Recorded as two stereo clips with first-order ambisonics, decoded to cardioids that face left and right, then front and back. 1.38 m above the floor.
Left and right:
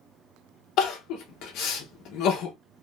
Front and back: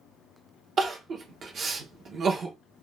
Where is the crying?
125° left, 0.8 m.